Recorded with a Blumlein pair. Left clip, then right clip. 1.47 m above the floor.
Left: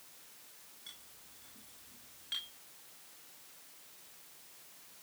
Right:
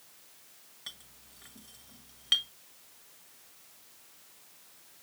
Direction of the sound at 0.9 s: 55° right.